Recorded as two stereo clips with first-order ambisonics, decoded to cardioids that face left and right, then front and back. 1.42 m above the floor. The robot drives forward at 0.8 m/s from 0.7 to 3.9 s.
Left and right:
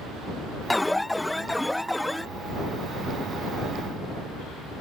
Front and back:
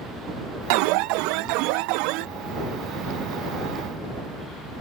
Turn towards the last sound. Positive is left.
turn(degrees=180)